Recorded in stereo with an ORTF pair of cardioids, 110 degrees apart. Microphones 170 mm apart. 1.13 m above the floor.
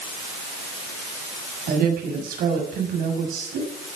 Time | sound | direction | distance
1.7 | a woman speaking | 60° right | 6.5 m